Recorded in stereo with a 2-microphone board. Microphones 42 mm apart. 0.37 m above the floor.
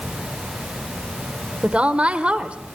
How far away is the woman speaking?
About 1.2 m.